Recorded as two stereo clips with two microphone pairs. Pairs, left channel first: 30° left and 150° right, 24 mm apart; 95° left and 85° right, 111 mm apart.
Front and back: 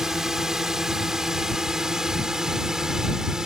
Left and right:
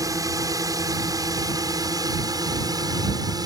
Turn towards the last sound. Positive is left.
turn(degrees=-100)